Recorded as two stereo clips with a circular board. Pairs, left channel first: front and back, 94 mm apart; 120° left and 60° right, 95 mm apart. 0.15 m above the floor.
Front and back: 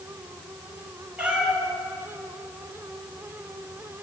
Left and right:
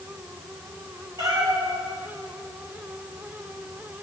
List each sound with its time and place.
1.2 s a cat meowing: 105° right, 2.0 m